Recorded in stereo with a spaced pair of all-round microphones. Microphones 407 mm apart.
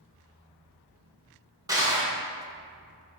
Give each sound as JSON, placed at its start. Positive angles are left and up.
{"t": 1.7, "sound": "crushing", "side_deg": -10, "distance_m": 1.2}